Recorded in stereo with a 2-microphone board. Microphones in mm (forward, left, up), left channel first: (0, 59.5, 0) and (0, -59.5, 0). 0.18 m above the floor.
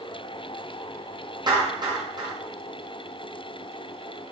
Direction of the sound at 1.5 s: 40° right (ahead or behind).